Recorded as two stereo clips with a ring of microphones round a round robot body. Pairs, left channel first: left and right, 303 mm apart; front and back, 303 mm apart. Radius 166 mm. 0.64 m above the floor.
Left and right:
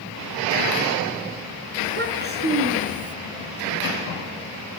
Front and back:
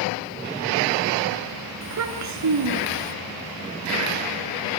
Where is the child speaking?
145° right, 5.5 m; by 3.1 s 155° right, 5 m.